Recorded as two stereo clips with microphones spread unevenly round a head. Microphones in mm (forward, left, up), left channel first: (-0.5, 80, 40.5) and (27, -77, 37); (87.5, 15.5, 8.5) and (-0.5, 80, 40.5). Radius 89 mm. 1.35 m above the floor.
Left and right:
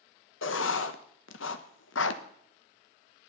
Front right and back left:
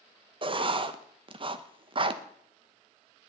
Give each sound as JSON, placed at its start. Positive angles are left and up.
{"t": 0.4, "sound": "writing", "azimuth_deg": 110, "distance_m": 1.0}